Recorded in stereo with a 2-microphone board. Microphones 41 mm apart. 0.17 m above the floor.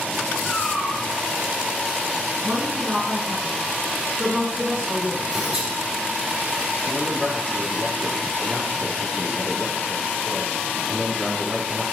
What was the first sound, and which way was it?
A cat meowing, 45° left (ahead or behind).